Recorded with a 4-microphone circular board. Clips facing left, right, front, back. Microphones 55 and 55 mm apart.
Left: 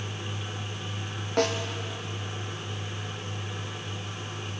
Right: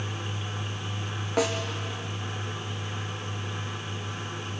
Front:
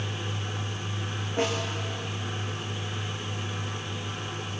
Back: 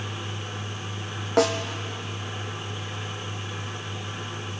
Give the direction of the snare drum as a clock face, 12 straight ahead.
6 o'clock.